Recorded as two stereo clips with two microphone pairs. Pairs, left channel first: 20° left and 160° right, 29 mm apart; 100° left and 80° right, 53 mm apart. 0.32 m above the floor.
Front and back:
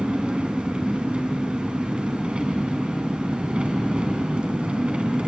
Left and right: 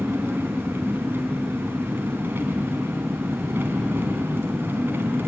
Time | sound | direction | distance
0.0 | an engine running | 115° right | 2.5 m